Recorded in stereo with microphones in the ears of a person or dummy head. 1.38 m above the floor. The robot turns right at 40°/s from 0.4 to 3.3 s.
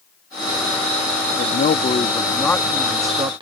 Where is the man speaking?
130° left; by 3.4 s 155° right.